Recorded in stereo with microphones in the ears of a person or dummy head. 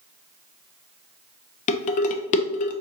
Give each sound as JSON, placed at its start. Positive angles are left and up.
{"t": 1.7, "sound": "dishes clattering", "side_deg": 50, "distance_m": 0.6}